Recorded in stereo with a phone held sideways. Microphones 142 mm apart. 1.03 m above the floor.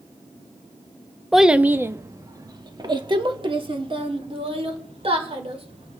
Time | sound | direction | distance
1.3 | a child speaking | centre (ahead or behind) | 0.6 m